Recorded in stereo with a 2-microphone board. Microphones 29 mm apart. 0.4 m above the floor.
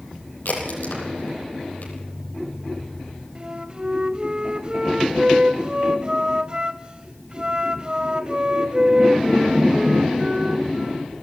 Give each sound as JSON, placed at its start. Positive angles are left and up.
{"t": 0.5, "sound": "a crack", "side_deg": 85, "distance_m": 9.5}
{"t": 3.4, "sound": "a flute", "side_deg": -35, "distance_m": 1.3}